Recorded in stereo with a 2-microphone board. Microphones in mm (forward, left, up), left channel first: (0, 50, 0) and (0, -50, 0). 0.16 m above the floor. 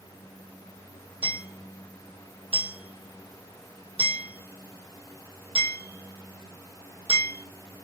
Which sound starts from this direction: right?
Hammering, at 1.2 s.